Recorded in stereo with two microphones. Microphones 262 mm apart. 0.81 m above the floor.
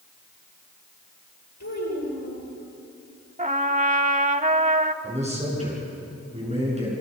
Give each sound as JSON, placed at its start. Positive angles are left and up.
{"t": 1.6, "sound": "a child speaking", "side_deg": 85, "distance_m": 10.0}
{"t": 3.4, "sound": "a trumpet", "side_deg": -30, "distance_m": 0.7}
{"t": 5.0, "sound": "a man speaking", "side_deg": -25, "distance_m": 8.0}